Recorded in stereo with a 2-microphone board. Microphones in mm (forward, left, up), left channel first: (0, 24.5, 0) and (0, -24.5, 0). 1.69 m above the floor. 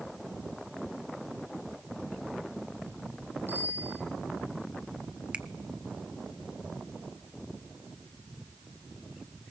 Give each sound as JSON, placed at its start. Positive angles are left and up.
{"t": 3.5, "sound": "a bicycle bell", "side_deg": -45, "distance_m": 10.0}
{"t": 5.3, "sound": "a finger snap", "side_deg": -25, "distance_m": 0.9}